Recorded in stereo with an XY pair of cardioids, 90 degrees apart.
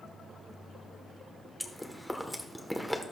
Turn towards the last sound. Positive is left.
turn(degrees=0)